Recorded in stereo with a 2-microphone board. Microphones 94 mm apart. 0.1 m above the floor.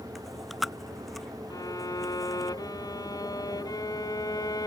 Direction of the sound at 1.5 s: 40° left (ahead or behind).